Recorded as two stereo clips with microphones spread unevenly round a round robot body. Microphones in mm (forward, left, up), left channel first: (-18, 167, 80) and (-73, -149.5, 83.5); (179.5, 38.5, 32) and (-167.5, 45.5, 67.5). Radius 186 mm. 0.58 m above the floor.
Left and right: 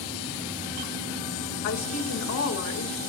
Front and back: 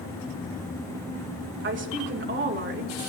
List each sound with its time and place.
1.6 s a woman speaking: 120° left, 2.5 m